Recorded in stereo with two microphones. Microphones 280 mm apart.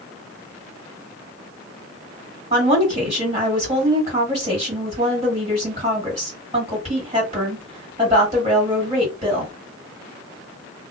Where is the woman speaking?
25° right (ahead or behind), 2.0 m.